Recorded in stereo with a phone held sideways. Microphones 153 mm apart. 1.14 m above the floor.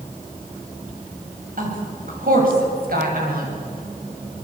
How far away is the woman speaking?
About 7.5 m.